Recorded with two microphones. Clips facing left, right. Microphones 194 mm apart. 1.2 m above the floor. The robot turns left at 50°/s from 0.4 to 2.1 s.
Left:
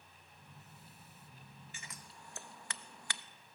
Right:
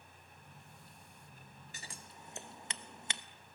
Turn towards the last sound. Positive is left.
turn(degrees=-20)  # may be behind; listen again after turning